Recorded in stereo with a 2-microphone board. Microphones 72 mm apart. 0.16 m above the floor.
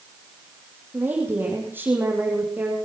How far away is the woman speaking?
About 6 m.